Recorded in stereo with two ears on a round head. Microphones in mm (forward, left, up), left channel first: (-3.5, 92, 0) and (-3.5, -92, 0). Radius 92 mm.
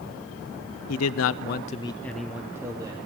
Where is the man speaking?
85° left, 0.7 m; by 3.1 s 20° right (ahead or behind), 1.2 m.